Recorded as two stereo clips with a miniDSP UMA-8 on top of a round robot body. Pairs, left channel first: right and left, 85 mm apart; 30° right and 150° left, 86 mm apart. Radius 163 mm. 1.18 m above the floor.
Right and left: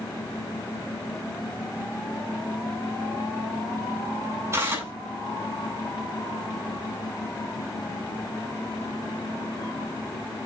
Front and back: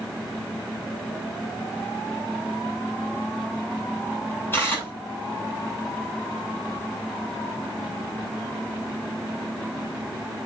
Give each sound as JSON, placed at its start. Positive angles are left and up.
{"t": 4.5, "sound": "tearing paper", "azimuth_deg": 30, "distance_m": 7.5}